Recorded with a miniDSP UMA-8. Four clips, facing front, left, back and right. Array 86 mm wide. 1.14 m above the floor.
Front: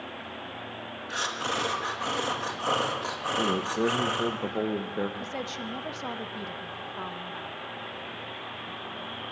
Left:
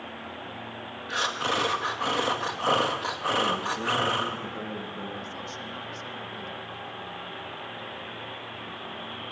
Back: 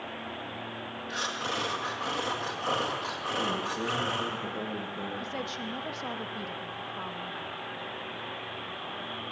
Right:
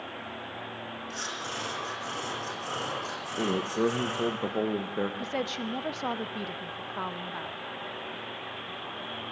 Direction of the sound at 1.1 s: 75° left.